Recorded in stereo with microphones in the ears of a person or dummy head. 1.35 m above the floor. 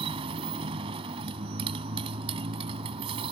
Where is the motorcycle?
30° right (ahead or behind).